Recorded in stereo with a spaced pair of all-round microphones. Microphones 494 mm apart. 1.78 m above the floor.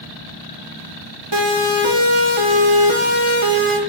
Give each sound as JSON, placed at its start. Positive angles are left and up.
{"t": 1.3, "sound": "a siren", "side_deg": -55, "distance_m": 3.0}